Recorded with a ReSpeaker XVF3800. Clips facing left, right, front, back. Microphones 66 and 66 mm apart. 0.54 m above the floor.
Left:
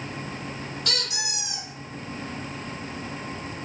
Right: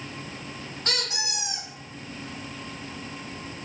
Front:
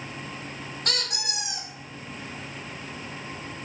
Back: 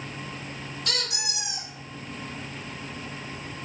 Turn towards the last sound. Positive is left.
turn(degrees=-35)